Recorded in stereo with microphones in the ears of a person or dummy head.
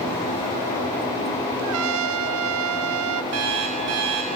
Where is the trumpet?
75° right (ahead or behind), 0.7 m.